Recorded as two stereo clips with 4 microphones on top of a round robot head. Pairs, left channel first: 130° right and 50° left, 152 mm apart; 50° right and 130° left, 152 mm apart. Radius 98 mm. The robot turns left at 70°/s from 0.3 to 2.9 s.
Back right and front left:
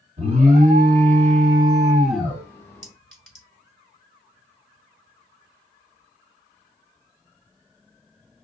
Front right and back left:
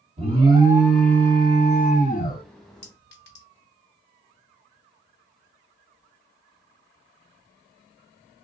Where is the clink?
40° right, 1.8 m; by 3.5 s 45° right, 1.8 m.